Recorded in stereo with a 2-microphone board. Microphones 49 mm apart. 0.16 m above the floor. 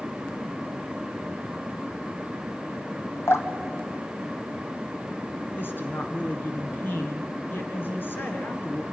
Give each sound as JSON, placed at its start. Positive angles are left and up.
{"t": 3.3, "sound": "dripping", "side_deg": 65, "distance_m": 1.7}
{"t": 5.6, "sound": "a woman speaking", "side_deg": 50, "distance_m": 1.7}